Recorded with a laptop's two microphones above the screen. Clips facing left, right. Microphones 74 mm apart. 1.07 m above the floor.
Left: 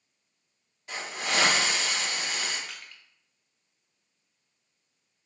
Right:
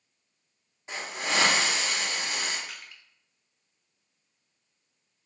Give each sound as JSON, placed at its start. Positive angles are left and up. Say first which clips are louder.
{"t": 0.9, "sound": "a hiss", "louder": "even", "side_deg": -25, "distance_m": 0.7}
{"t": 2.7, "sound": "crushing", "louder": "even", "side_deg": -10, "distance_m": 0.7}